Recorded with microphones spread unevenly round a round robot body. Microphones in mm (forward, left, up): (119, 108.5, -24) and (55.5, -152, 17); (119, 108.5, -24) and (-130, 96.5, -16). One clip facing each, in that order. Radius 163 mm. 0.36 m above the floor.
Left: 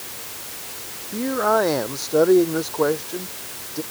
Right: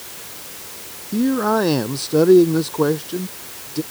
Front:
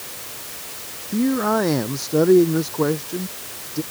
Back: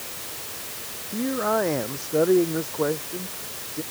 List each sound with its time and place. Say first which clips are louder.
1.1 s a man speaking: right 4 dB, front 6 dB; 55° right